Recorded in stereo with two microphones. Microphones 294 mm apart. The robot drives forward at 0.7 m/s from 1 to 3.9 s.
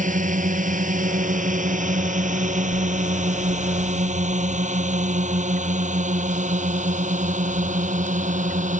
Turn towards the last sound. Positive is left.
turn(degrees=-25)  # may be behind; listen again after turning